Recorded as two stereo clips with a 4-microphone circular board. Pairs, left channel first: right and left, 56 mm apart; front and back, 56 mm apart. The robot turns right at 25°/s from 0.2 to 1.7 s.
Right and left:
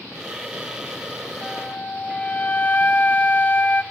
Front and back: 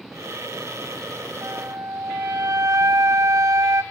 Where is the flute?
160° right, 1.2 m; by 3.8 s 150° right, 1.2 m.